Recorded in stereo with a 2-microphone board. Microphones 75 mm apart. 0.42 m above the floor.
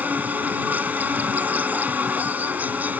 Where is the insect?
20° right (ahead or behind).